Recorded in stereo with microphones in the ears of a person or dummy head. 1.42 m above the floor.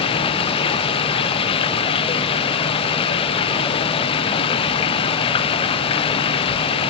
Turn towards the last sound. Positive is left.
turn(degrees=25)  # may be behind; listen again after turning